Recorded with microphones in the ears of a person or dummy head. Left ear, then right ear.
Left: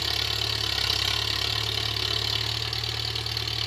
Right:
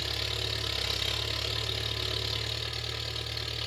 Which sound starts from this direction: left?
An engine running, at 0.0 s.